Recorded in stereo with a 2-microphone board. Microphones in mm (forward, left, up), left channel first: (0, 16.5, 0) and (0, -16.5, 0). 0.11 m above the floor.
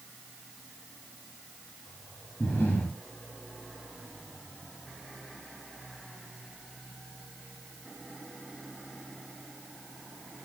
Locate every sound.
2.4 s breathing: 75° left (ahead or behind), 8 m